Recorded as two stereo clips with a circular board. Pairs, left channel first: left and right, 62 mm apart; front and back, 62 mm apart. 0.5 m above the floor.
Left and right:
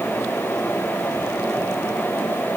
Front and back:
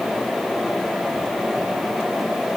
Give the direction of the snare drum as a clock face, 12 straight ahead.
I don't hear a snare drum.